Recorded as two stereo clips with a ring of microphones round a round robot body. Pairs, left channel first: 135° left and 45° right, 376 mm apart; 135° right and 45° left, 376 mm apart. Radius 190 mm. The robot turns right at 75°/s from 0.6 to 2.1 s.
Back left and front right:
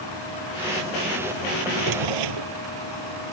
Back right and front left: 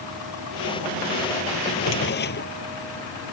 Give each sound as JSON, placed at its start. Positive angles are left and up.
{"t": 1.7, "sound": "a drawer", "azimuth_deg": -105}